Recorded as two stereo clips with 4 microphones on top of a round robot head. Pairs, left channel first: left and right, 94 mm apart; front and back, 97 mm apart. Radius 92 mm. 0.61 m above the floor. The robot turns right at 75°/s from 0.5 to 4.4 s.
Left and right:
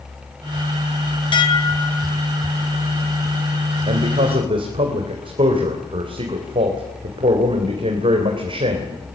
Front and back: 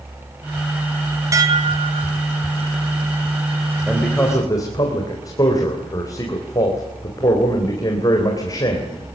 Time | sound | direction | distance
1.3 | dishes clattering | 120° left | 3 m
3.9 | a man speaking | 100° right | 3.5 m